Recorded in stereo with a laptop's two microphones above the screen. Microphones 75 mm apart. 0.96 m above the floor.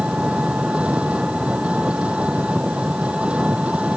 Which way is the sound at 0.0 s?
15° right (ahead or behind).